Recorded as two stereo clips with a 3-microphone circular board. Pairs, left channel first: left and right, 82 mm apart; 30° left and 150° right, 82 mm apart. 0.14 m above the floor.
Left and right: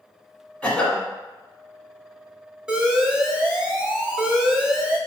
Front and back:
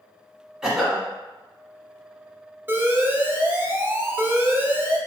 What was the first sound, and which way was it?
A cough, 140° left.